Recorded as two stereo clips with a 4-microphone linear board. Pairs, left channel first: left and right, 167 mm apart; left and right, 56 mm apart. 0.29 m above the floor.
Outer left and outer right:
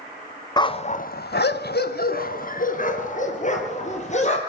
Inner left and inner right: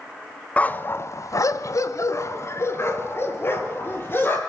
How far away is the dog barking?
About 1.1 m.